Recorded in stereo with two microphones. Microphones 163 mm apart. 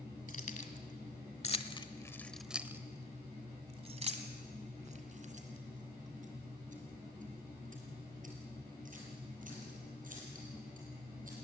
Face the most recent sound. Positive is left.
turn(degrees=-55)  # may be behind; listen again after turning